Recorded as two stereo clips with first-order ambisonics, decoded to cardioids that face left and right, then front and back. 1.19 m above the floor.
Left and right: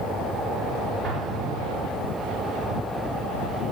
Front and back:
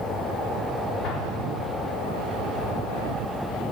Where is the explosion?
30° right, 3.5 m.